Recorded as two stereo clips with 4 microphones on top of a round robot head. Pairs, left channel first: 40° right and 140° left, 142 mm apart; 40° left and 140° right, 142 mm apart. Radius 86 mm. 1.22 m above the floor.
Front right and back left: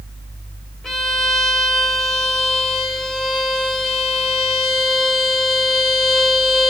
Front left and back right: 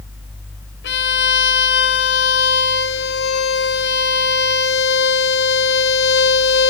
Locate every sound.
0.8 s a violin: 45° left, 0.6 m